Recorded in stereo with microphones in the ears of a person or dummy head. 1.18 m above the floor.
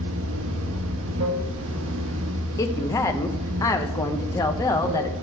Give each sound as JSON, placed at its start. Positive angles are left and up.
{"t": 0.0, "sound": "running water", "side_deg": -70, "distance_m": 1.0}
{"t": 2.6, "sound": "a woman speaking", "side_deg": 15, "distance_m": 0.7}